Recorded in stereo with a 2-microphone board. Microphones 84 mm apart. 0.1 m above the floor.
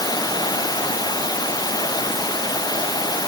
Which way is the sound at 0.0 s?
50° left (ahead or behind).